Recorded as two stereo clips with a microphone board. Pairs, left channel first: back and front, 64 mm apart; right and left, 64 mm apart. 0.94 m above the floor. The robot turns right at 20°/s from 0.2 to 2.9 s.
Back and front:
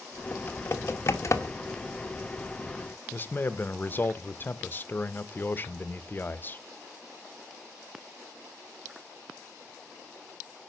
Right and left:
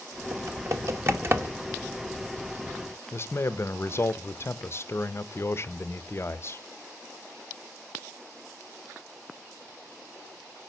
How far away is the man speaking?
About 0.6 m.